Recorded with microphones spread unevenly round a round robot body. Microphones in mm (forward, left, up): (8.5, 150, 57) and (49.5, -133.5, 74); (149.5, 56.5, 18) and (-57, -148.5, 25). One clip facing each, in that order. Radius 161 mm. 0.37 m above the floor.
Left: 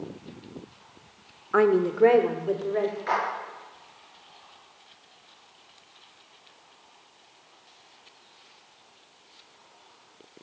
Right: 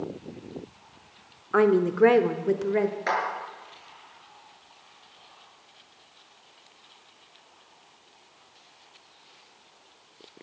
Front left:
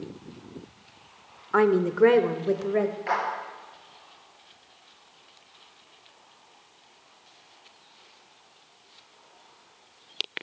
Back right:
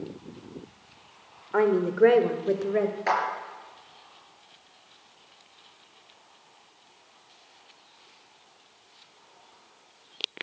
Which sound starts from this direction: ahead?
A woman speaking, at 1.5 s.